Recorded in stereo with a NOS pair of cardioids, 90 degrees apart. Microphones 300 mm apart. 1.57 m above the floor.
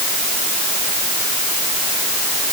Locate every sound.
Only background noise.